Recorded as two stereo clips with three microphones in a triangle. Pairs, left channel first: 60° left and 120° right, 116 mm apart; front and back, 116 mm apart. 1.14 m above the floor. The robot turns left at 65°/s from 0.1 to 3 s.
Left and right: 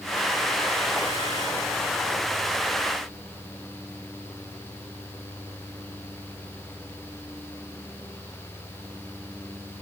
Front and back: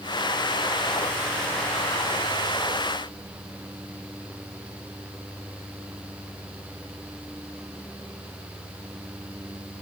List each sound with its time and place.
Only background noise.